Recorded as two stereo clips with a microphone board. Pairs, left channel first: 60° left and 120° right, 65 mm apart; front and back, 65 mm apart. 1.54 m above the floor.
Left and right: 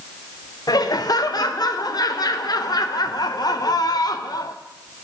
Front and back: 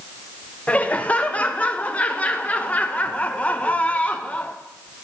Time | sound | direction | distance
0.7 | laughter | 70° left | 0.7 m